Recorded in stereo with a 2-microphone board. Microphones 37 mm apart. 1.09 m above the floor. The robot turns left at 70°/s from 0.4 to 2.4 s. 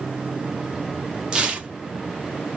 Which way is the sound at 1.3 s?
25° right (ahead or behind).